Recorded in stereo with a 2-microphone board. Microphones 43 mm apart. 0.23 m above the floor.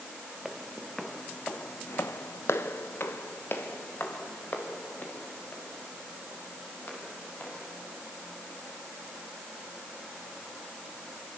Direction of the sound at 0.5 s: 5° right (ahead or behind).